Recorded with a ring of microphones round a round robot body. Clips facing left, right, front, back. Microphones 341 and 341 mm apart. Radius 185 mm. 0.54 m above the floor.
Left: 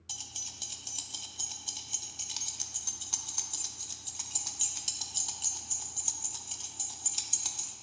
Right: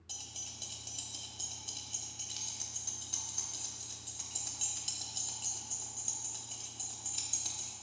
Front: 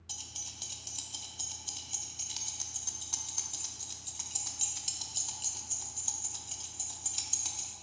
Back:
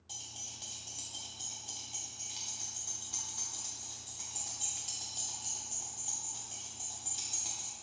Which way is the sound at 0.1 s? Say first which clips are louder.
Even, even; 35° left.